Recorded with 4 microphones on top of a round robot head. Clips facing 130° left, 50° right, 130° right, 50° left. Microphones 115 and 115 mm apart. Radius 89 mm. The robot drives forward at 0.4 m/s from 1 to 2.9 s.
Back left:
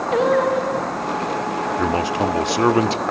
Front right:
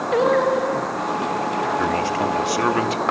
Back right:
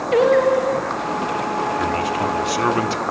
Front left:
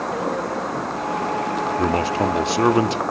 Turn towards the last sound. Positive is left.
turn(degrees=100)